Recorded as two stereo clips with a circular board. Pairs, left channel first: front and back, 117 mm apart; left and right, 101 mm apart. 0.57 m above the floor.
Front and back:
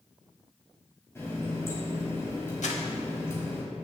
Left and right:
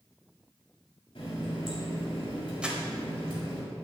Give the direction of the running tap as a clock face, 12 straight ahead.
10 o'clock.